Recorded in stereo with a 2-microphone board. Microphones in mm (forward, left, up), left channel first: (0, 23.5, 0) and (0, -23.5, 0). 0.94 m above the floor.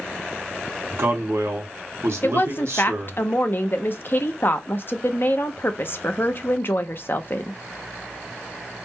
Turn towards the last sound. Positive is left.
turn(degrees=50)  # may be behind; listen again after turning